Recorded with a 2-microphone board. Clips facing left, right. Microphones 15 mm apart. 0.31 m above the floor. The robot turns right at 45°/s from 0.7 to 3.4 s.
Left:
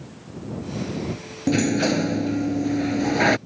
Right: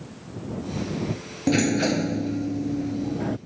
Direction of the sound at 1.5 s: 5° right.